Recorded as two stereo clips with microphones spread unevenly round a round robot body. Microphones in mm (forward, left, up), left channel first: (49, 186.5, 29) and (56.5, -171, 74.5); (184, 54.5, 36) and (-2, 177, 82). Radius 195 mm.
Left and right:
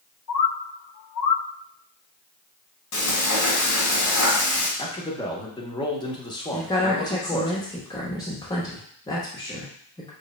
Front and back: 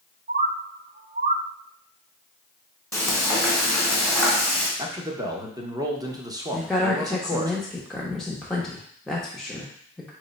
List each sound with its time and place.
0.3 s a bird: 85° left, 0.5 m
2.9 s frying: 65° left, 1.8 m
4.8 s a man speaking: 65° left, 0.8 m
6.5 s a woman speaking: 35° left, 0.8 m